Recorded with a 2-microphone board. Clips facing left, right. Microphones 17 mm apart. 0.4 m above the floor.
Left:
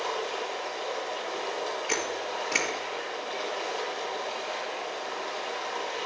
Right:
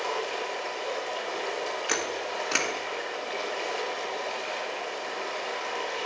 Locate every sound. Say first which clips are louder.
0.0 s running water: right 1 dB; 35° right (ahead or behind), 3.5 m
1.9 s a camera shutter: right 1 dB; 65° right (ahead or behind), 1.9 m